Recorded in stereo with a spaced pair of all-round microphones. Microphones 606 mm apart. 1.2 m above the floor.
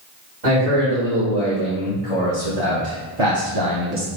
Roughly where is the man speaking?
Right.